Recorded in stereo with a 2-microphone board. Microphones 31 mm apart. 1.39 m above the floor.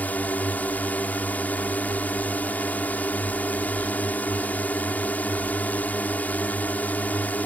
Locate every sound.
0.0 s a drone: 65° left (ahead or behind)